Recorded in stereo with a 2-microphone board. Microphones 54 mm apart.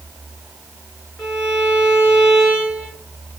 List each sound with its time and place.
1.2 s a violin: 5° right (ahead or behind), 4 m